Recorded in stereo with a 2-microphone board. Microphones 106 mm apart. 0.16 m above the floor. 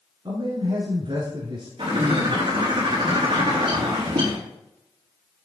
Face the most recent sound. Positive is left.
turn(degrees=-65)  # may be behind; listen again after turning